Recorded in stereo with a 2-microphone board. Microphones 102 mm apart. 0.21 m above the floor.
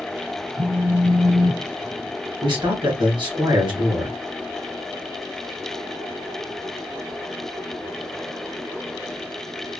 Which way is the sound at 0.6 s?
70° right (ahead or behind).